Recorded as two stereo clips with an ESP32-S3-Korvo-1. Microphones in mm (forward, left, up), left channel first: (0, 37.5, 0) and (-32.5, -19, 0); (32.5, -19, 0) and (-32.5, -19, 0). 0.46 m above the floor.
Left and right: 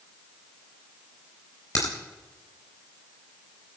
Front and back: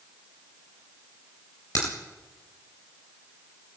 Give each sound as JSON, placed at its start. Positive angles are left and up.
{"t": 1.8, "sound": "a crack", "azimuth_deg": 20, "distance_m": 4.0}